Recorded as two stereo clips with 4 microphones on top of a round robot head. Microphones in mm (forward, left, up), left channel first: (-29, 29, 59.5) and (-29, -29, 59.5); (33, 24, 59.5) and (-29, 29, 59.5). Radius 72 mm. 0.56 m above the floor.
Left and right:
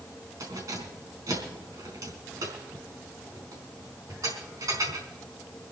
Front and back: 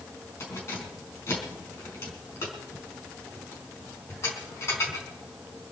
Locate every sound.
0.4 s keys jangling: 55° right, 4.5 m